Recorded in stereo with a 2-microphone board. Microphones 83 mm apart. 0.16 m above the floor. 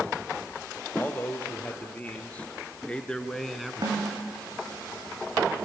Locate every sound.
0.9 s a man speaking: 25° left (ahead or behind), 3.5 m; by 4.1 s 15° right (ahead or behind), 1.1 m
3.8 s a snare drum: 60° right (ahead or behind), 6.5 m